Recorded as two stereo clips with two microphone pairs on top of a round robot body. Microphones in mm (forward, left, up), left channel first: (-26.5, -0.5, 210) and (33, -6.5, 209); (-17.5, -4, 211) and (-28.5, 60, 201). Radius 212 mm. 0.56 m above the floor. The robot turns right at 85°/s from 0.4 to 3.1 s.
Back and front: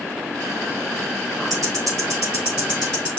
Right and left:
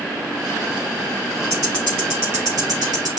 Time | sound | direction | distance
1.5 | ticking | 35° right | 3.5 m